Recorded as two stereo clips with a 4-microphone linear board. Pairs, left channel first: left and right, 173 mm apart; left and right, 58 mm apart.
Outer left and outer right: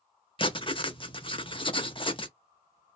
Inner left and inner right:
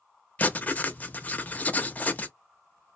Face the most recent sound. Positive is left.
turn(degrees=30)  # may be behind; listen again after turning